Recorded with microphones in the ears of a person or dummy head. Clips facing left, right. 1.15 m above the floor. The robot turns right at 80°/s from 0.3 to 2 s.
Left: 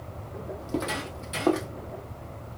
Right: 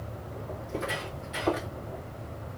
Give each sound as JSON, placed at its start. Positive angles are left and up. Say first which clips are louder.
{"t": 0.6, "sound": "footsteps", "louder": "left 4 dB", "side_deg": 45, "distance_m": 2.0}